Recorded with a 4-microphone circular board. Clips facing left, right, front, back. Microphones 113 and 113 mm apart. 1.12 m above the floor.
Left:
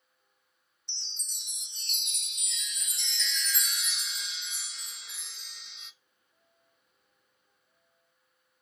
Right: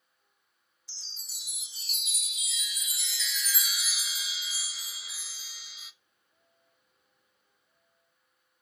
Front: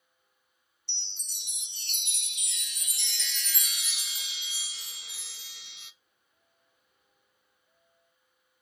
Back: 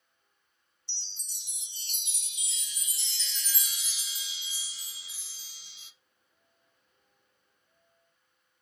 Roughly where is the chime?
Ahead.